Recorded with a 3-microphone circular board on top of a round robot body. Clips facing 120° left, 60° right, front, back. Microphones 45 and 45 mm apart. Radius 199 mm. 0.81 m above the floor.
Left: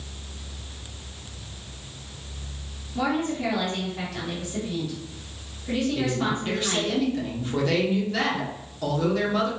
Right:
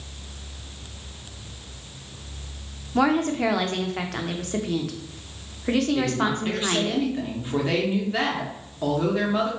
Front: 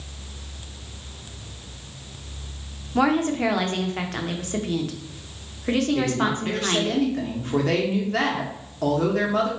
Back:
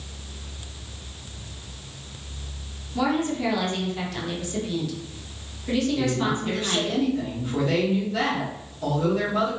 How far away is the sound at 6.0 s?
About 1.2 m.